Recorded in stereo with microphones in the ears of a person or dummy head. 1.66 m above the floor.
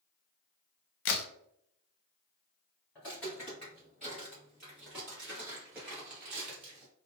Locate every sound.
1.1 s a crack: 70° left (ahead or behind), 0.6 m
3.0 s footsteps: 5° left (ahead or behind), 1.7 m; by 6.9 s 10° right (ahead or behind), 2.5 m